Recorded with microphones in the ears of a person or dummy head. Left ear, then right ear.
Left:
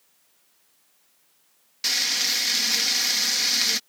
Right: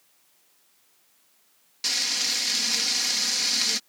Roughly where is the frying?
Centre.